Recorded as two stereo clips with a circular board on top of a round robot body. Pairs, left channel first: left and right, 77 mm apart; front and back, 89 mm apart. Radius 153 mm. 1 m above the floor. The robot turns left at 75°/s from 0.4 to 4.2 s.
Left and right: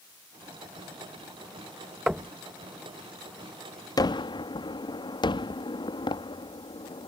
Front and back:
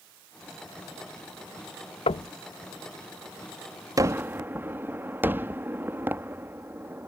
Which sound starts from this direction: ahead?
Knocking, at 2.1 s.